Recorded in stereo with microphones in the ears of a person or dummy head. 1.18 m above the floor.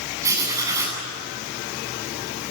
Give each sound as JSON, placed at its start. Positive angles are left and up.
{"t": 0.2, "sound": "writing", "side_deg": -15, "distance_m": 9.0}